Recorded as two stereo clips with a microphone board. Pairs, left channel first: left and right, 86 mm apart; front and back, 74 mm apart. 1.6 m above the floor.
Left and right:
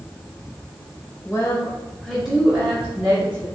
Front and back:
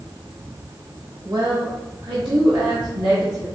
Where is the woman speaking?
145° left, 0.9 m; by 3.5 s 155° right, 1.7 m.